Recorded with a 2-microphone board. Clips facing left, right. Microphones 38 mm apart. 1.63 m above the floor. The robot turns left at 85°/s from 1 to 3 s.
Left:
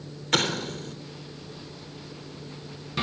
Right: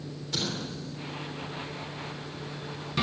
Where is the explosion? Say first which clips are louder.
Left 8 dB; 65° left (ahead or behind), 3 m.